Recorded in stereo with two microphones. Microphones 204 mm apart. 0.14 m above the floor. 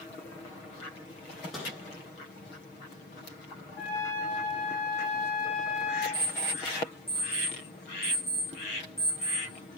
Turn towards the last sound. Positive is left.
turn(degrees=-55)  # may be behind; listen again after turning